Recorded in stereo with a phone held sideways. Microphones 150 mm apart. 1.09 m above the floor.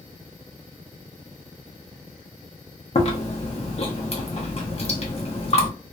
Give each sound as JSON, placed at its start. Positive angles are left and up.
{"t": 3.0, "sound": "chewing", "side_deg": 45, "distance_m": 0.7}